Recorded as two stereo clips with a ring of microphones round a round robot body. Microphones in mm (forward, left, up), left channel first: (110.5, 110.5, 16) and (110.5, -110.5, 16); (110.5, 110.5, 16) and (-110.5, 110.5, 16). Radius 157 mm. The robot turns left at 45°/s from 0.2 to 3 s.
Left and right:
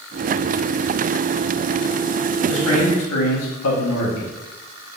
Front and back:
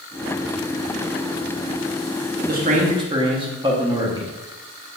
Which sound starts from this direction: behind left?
A man speaking, at 2.5 s.